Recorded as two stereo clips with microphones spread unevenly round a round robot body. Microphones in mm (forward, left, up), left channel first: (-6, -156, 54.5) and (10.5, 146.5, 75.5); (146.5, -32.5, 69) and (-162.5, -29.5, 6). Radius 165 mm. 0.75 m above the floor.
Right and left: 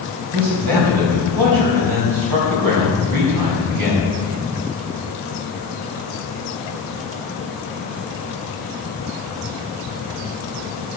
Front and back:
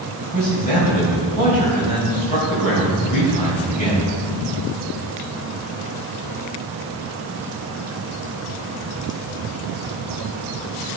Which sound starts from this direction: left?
A man speaking, at 0.3 s.